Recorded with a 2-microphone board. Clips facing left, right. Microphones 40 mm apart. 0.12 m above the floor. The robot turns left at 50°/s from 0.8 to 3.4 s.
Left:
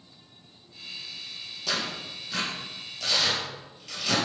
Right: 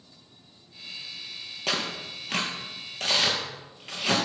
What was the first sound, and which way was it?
Tearing paper, 45° right (ahead or behind).